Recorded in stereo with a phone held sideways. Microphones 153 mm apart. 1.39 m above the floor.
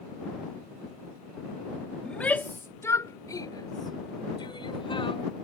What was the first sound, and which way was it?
A shout, 5° left (ahead or behind).